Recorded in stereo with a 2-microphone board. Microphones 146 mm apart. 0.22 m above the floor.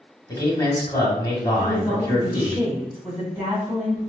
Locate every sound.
0.3 s a man speaking: 25° left (ahead or behind), 1.1 m
1.6 s a woman speaking: 10° right (ahead or behind), 1.7 m